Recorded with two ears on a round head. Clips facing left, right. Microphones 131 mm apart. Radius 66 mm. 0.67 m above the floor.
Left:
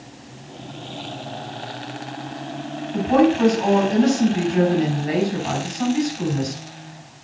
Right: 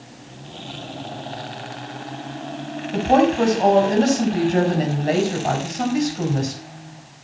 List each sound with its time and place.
2.9 s a woman speaking: 60° right (ahead or behind), 5.5 m